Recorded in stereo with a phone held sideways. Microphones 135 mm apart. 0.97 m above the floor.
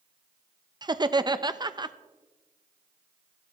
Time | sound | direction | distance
0.8 | laughter | 30° right (ahead or behind) | 0.6 m